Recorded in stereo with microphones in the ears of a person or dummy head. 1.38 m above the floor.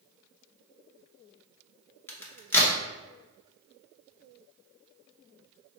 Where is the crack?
15° left (ahead or behind), 0.8 m.